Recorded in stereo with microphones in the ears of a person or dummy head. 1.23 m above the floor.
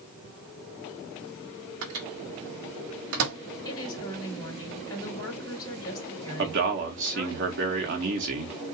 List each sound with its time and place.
1.8 s a microwave: 65° right (ahead or behind), 1.6 m
3.6 s a woman speaking: 15° left (ahead or behind), 2.5 m
6.4 s a man speaking: 55° right (ahead or behind), 1.9 m